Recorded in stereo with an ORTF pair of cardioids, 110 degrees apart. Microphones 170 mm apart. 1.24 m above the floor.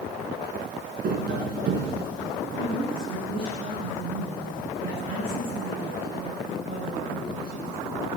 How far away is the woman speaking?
About 9.5 m.